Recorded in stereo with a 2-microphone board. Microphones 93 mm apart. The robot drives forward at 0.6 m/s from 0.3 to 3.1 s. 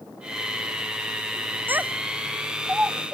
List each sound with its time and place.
1.7 s a child speaking: 20° right (ahead or behind); by 3.1 s 15° right (ahead or behind)